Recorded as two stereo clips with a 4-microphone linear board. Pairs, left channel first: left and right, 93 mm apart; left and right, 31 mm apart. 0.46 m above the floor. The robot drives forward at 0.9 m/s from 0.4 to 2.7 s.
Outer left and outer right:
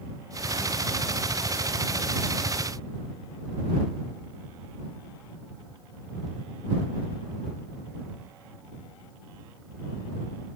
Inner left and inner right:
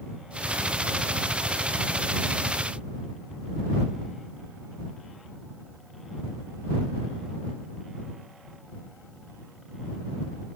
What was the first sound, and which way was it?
Only background noise.